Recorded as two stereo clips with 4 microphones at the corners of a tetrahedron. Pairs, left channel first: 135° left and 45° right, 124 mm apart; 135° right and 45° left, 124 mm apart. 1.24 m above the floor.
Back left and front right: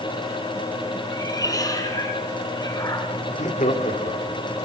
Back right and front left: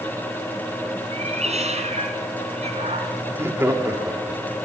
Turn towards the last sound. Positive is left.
turn(degrees=115)